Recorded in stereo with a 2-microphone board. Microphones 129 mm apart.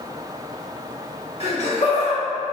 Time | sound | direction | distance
1.4 | laughter | 50° left (ahead or behind) | 1.4 m